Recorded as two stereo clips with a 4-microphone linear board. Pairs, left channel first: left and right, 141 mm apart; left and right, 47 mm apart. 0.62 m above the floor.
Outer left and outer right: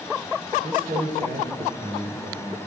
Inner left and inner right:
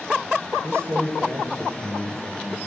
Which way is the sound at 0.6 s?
65° right (ahead or behind).